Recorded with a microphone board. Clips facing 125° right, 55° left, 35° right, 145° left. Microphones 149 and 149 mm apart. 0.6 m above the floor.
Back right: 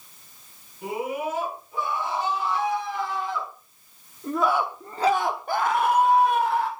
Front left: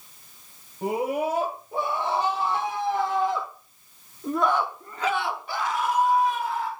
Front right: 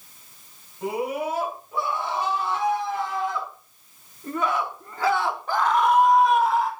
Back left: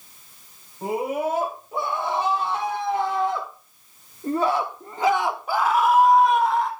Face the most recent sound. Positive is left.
turn(degrees=-120)